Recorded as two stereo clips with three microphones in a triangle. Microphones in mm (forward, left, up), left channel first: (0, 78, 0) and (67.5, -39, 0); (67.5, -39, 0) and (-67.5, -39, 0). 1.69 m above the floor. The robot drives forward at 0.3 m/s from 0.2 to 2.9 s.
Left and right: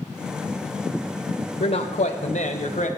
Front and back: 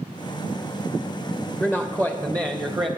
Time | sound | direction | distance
1.6 | a man speaking | 90° left | 0.5 m